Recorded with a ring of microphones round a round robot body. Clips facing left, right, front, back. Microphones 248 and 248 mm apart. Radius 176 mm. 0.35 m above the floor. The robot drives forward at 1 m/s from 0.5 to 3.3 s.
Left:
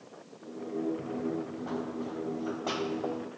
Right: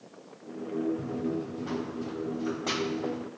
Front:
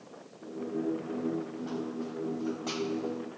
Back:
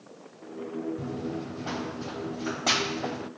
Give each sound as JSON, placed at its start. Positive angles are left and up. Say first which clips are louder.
{"t": 1.0, "sound": "running footsteps", "louder": "right 2 dB, even", "azimuth_deg": -155}